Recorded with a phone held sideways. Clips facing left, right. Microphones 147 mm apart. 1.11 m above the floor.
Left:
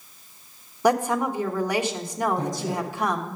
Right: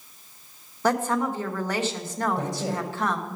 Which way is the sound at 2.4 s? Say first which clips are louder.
Left 1 dB; 70° right (ahead or behind).